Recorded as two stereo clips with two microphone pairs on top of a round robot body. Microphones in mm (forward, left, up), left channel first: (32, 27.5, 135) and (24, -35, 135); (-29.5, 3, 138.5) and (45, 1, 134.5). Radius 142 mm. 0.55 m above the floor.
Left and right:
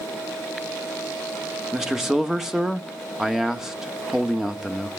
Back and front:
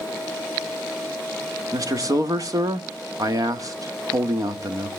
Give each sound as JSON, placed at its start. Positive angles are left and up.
{"t": 1.7, "sound": "a man speaking", "azimuth_deg": -15, "distance_m": 1.8}